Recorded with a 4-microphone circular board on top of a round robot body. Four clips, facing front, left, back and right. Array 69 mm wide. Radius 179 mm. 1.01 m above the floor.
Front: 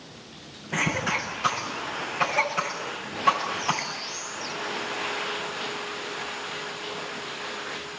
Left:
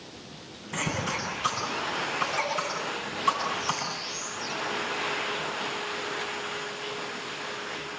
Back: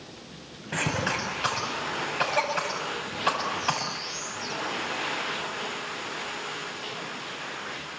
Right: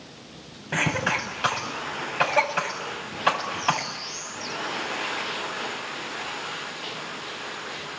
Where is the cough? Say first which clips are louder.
Right 6 dB, front 2 dB; 100° right, 8.5 m.